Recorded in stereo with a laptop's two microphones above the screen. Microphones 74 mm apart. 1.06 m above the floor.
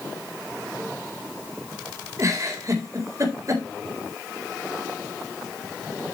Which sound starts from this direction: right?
A giggle, at 2.2 s.